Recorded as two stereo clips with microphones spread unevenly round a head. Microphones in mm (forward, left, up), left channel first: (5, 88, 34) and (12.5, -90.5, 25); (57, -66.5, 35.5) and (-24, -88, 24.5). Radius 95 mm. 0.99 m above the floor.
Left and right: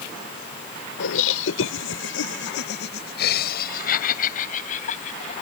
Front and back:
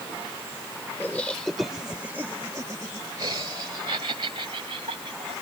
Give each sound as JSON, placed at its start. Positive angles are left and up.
{"t": 1.0, "sound": "laughter", "azimuth_deg": 90}